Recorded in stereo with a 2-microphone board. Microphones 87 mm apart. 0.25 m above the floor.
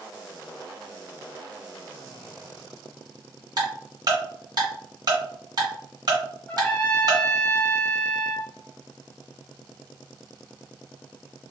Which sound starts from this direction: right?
Ticking, at 3.6 s.